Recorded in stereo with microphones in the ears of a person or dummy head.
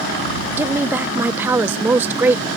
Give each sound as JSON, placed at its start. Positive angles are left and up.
{"t": 0.6, "sound": "a woman speaking", "side_deg": -15}